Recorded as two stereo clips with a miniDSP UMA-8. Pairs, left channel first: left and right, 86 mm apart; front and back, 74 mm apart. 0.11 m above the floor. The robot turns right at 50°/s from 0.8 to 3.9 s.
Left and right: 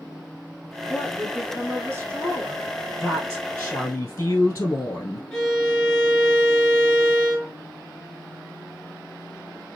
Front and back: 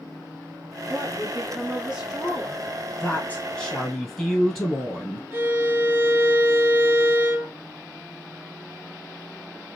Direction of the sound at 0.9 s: 165° right.